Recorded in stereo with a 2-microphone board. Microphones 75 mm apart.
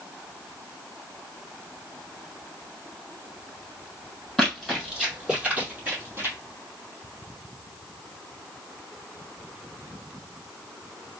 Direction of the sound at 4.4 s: Centre (ahead or behind).